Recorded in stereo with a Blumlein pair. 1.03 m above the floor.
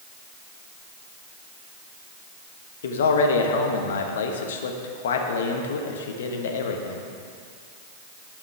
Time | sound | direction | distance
2.8 | a man speaking | 60° left | 0.9 m